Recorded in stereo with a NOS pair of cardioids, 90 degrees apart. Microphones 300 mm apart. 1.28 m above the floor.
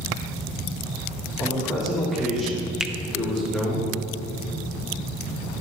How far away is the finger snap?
About 0.6 m.